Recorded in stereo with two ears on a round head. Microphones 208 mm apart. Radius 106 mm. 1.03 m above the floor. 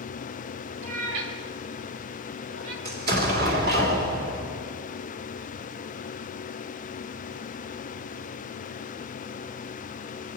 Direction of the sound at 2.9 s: 45° right (ahead or behind).